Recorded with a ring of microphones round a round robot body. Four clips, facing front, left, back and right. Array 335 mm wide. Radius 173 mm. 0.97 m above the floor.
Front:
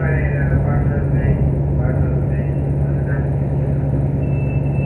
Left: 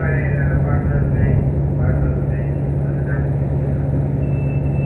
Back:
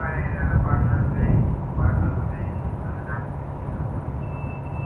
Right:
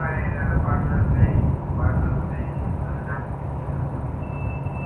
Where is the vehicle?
40° left.